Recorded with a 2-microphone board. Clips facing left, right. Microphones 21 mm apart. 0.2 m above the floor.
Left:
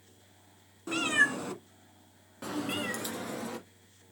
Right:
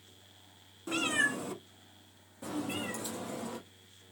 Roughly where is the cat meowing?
Centre.